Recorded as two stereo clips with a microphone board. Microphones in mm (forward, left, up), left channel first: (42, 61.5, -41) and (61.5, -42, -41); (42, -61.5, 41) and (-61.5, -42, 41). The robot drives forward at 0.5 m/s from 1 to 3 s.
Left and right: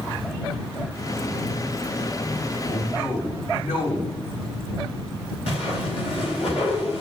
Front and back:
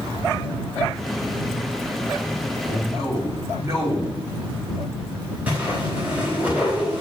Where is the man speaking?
110° left, 3 m.